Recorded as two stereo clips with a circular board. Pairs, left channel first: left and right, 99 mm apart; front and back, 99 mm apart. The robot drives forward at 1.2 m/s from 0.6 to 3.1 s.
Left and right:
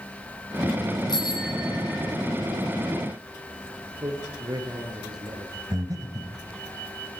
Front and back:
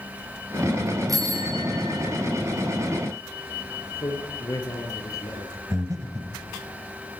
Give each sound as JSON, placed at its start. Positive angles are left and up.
{"t": 1.1, "sound": "a bicycle bell", "azimuth_deg": 130, "distance_m": 7.0}
{"t": 4.0, "sound": "a man speaking", "azimuth_deg": -50, "distance_m": 7.0}
{"t": 5.7, "sound": "breathing", "azimuth_deg": -135, "distance_m": 3.0}